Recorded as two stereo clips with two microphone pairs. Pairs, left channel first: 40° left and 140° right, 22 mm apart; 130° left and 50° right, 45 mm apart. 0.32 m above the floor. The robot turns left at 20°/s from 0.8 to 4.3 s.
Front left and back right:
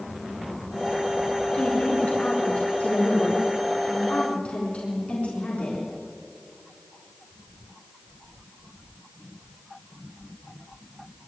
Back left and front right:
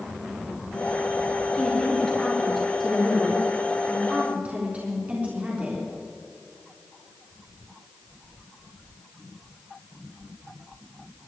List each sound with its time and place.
1.5 s a woman speaking: 65° left, 4 m; by 5.9 s 10° left, 4 m